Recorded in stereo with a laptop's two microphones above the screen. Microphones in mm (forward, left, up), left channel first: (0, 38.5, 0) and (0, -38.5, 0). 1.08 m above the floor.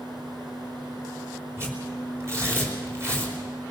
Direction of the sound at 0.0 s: 85° right.